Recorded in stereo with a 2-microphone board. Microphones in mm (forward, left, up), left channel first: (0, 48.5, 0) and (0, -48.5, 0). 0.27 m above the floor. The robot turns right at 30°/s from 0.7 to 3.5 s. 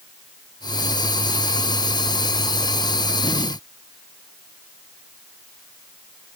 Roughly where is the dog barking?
I don't hear a dog barking.